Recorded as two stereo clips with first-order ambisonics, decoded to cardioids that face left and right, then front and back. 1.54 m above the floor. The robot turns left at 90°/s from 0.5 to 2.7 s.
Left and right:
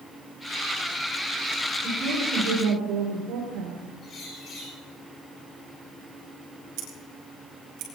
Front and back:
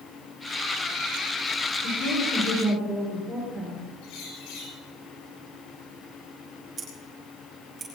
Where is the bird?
25° left, 7 m.